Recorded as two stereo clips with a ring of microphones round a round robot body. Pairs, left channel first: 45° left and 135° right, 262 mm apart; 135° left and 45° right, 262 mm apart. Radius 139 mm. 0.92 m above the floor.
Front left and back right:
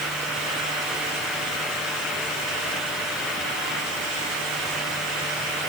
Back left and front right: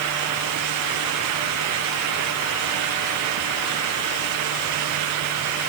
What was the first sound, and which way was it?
Only background noise.